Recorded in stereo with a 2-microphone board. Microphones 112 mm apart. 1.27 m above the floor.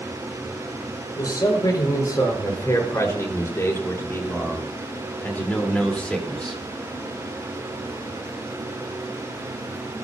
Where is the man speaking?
35° left (ahead or behind), 5.5 m; by 6.6 s 5° left (ahead or behind), 3.5 m.